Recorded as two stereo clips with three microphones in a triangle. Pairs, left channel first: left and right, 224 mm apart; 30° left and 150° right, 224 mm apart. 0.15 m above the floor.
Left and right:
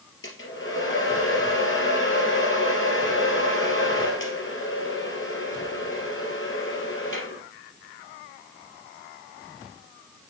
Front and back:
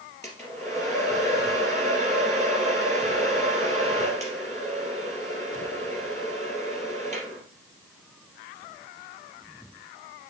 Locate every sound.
0.2 s a hair dryer: 105° left, 3 m